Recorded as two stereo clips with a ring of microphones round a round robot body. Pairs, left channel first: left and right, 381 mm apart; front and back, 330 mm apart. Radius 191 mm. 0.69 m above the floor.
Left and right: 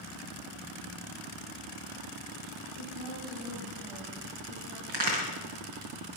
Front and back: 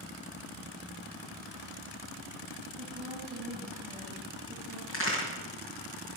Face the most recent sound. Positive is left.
turn(degrees=-60)